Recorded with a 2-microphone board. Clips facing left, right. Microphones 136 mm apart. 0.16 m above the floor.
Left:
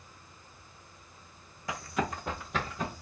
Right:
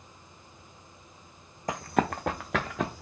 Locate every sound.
1.7 s running footsteps: 40° right (ahead or behind), 0.6 m; by 3.0 s 85° right, 1.1 m